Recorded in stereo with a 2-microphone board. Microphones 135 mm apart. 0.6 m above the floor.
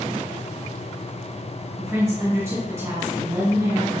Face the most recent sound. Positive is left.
turn(degrees=-20)  # may be behind; listen again after turning